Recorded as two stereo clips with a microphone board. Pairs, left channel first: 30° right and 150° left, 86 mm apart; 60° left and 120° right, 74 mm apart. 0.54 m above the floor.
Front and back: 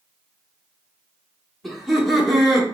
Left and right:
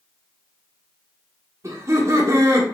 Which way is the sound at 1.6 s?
120° right.